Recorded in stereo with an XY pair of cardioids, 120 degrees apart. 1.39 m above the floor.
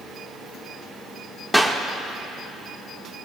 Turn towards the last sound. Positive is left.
turn(degrees=5)